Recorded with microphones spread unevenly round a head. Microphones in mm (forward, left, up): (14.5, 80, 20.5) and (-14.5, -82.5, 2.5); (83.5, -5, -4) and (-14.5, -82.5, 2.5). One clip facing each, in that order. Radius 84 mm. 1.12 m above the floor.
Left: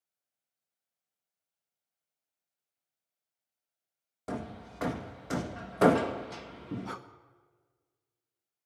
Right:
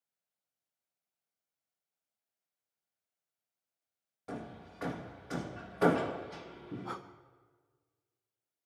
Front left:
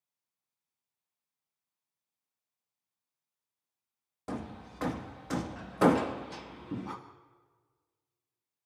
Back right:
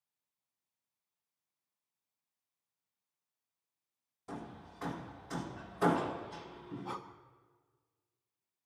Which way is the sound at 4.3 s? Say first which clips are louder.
Left 5 dB, front left 6 dB; 45° left.